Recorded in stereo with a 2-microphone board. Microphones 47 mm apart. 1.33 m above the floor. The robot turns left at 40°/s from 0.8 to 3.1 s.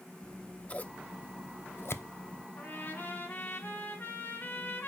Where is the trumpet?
30° left (ahead or behind), 1.7 m; by 4.9 s 50° left (ahead or behind), 1.7 m.